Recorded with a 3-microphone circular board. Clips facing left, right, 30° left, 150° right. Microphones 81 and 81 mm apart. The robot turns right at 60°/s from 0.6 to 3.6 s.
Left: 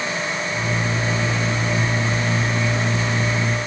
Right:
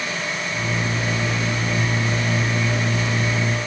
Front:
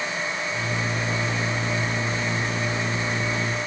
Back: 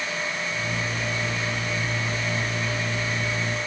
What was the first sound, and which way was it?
Only background noise.